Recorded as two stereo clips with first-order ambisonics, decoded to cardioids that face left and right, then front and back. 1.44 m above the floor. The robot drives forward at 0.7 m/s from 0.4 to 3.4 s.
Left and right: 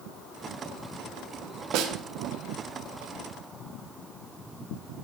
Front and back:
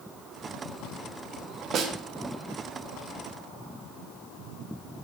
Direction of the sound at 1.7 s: 125° right.